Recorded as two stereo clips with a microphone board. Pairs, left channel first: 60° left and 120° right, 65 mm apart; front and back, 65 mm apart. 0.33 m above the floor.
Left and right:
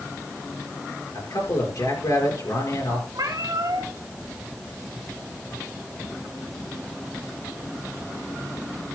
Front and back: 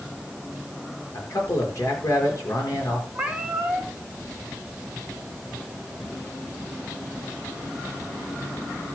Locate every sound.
1.1 s a man speaking: 35° left, 5 m
3.1 s a cat meowing: 105° right, 2.0 m